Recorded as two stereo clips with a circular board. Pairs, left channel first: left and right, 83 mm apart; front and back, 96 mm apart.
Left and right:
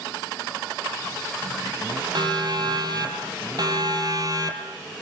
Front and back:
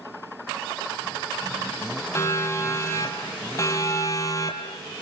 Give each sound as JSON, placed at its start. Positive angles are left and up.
{"t": 2.1, "sound": "a siren", "azimuth_deg": -60, "distance_m": 5.0}